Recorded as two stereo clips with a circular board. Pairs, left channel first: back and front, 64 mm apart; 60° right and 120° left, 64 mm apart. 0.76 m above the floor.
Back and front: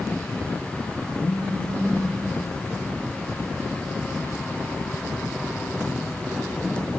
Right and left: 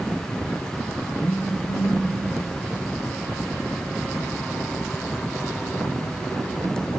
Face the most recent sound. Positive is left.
turn(degrees=-135)